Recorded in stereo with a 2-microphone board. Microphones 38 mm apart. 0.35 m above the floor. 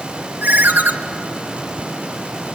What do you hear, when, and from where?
0.4 s a ringtone: 55° right (ahead or behind), 1.1 m